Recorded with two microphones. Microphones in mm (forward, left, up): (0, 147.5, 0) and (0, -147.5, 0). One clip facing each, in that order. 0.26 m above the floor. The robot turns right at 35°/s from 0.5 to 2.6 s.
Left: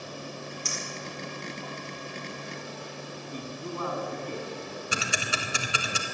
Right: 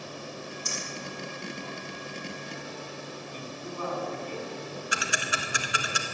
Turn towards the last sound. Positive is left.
turn(degrees=30)  # may be behind; listen again after turning